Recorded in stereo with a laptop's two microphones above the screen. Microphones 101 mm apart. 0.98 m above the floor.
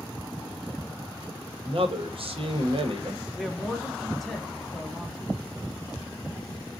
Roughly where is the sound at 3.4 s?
Centre.